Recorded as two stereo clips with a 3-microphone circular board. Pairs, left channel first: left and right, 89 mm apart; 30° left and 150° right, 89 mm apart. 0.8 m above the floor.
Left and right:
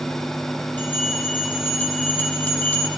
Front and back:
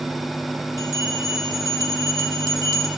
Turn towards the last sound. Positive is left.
turn(degrees=165)